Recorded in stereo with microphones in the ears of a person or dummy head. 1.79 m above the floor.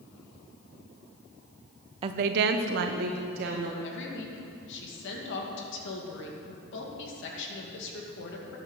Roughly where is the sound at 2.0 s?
Right.